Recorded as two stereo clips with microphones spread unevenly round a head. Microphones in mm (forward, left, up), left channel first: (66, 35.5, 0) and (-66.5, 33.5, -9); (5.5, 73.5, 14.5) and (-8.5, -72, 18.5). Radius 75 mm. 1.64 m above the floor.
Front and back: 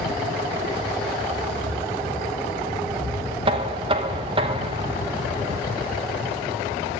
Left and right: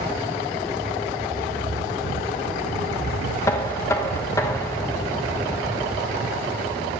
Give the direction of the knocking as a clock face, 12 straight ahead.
7 o'clock.